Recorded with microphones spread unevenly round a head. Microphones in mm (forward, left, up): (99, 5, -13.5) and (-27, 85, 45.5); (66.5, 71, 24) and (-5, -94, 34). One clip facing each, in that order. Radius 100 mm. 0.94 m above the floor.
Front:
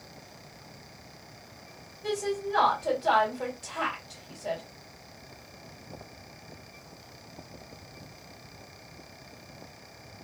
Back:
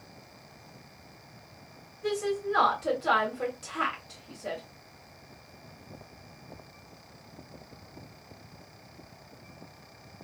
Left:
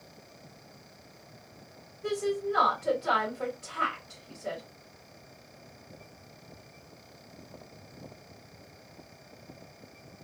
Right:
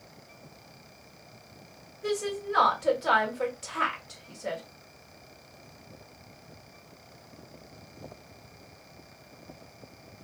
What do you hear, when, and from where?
2.0 s a woman speaking: 160° right, 1.6 m